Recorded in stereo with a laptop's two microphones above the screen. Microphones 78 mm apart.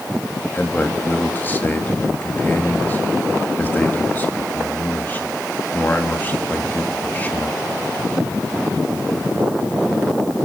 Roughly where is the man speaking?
Left.